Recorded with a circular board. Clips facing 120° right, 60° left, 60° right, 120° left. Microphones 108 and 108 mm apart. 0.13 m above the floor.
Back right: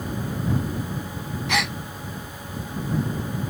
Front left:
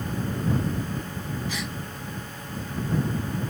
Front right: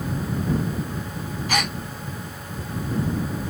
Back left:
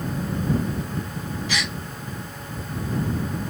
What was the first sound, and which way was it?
A gasp, 100° right.